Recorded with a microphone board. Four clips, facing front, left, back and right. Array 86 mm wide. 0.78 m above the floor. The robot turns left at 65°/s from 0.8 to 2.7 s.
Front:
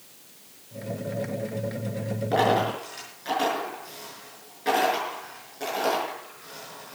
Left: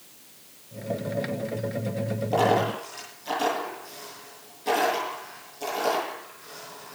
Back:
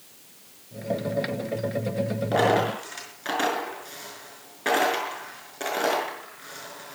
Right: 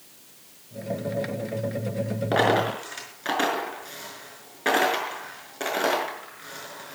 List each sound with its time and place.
2.3 s a dropped coin: 90° right, 6 m; by 7.0 s 115° right, 6 m